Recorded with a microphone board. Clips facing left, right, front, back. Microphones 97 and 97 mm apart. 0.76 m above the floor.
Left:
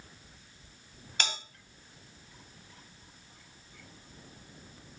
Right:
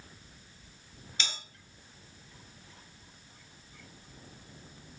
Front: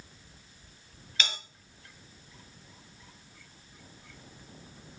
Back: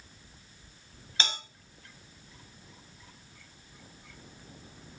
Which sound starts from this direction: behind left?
A bell, at 1.2 s.